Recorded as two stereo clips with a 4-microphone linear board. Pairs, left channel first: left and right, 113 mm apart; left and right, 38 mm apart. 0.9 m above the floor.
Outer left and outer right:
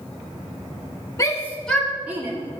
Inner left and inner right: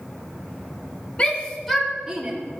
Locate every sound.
1.2 s a shout: 30° left (ahead or behind), 1.9 m; by 2.3 s 25° right (ahead or behind), 1.9 m